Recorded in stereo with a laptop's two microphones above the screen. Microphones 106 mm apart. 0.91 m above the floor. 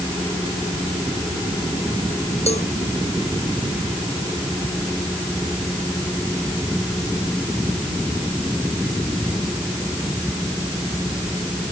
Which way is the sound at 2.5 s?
80° left.